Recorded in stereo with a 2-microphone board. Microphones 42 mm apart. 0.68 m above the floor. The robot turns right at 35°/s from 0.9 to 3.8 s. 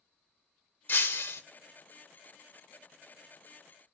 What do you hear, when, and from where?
0.9 s breaking glass: 55° left (ahead or behind), 0.7 m; by 1.4 s 70° left (ahead or behind), 0.7 m